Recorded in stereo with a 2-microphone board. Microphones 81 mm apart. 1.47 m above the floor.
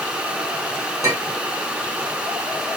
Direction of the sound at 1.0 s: 35° right (ahead or behind).